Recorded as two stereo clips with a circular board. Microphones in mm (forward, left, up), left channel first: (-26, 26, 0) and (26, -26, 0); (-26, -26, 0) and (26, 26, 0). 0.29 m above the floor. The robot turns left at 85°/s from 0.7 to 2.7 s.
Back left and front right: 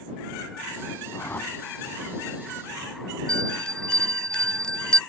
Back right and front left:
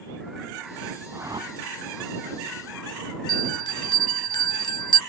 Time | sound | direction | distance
1.1 | a whoosh | 95° left | ?
3.3 | a bell | 145° right | ?